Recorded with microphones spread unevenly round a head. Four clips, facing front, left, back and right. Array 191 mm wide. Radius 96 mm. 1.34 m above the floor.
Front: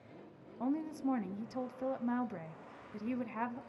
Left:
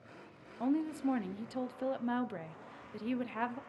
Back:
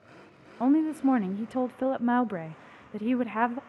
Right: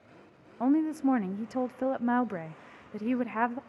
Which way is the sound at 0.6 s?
155° right.